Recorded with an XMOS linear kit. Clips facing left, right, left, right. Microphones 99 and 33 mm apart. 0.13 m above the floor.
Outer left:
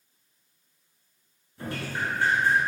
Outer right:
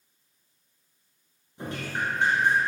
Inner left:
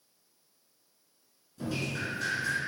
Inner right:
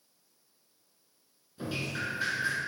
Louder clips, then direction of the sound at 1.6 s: Even, even; 25° right (ahead or behind).